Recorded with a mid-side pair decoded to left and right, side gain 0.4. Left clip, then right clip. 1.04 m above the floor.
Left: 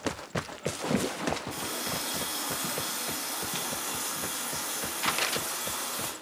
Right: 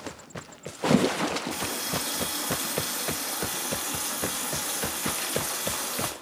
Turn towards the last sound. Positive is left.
turn(degrees=-40)